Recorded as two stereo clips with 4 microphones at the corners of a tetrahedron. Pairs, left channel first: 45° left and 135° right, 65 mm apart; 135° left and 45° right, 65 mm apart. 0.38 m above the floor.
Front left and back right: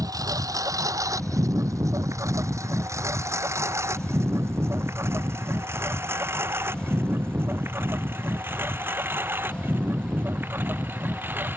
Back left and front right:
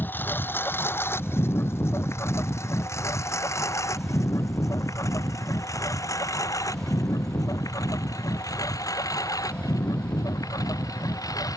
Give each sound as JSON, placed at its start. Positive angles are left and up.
{"t": 0.0, "sound": "a lawn mower", "azimuth_deg": -165}